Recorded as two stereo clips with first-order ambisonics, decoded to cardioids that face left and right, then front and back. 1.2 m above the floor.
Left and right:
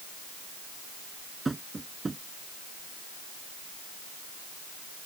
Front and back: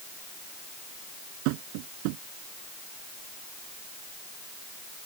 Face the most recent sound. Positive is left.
turn(degrees=-170)